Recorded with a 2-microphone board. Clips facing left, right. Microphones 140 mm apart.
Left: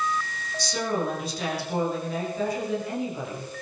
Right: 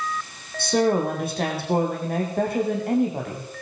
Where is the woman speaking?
55° right (ahead or behind), 8.5 m.